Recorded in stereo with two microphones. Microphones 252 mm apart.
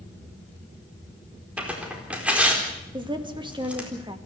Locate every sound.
1.6 s tearing paper: 5° right (ahead or behind), 4 m
2.9 s a woman speaking: 20° right (ahead or behind), 2.5 m